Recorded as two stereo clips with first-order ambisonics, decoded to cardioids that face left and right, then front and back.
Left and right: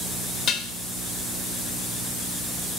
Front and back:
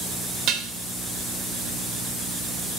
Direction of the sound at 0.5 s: 150° left.